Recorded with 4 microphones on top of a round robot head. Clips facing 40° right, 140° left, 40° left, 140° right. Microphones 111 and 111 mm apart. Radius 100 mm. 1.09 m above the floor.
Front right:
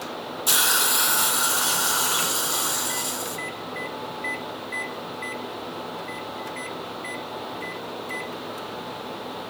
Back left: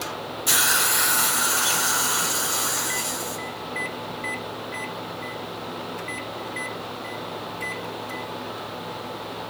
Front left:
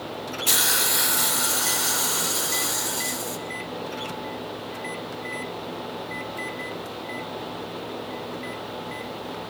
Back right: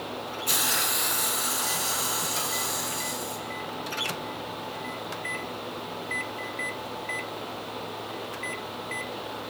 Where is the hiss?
30° left, 2.5 m.